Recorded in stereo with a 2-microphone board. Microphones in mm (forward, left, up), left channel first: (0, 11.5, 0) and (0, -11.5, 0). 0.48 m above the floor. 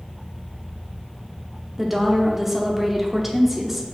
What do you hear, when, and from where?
1.8 s a woman speaking: 10° right (ahead or behind), 0.9 m